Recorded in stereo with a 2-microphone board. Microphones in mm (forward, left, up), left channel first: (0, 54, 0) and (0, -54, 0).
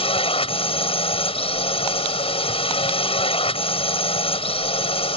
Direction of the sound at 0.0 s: 60° left (ahead or behind).